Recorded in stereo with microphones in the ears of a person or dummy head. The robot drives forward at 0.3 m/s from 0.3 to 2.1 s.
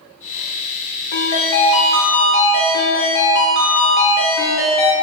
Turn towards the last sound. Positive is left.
turn(degrees=40)  # may be behind; listen again after turning